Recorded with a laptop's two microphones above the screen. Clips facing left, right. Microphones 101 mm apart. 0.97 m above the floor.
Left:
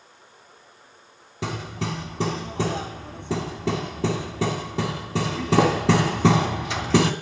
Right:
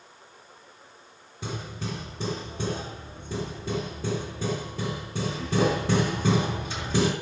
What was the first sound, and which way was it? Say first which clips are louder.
Hammering: left 5 dB; 80° left.